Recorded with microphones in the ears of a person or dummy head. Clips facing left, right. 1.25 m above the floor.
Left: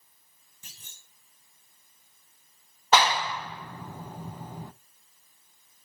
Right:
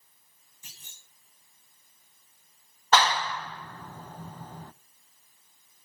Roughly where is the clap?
Centre.